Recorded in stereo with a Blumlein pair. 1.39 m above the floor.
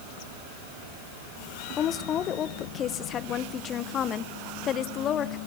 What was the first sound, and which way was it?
A woman speaking, 30° left.